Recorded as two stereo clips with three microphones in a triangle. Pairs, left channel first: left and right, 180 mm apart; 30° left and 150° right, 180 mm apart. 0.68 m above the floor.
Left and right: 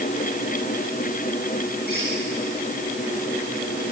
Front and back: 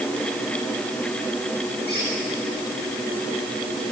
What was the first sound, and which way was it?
A squeak, 55° left.